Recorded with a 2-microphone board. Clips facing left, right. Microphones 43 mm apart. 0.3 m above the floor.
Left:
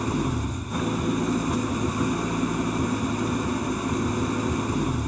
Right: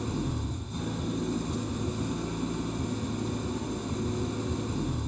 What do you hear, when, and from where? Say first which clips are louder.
0.0 s an engine running: left 6 dB; 60° left (ahead or behind), 2 m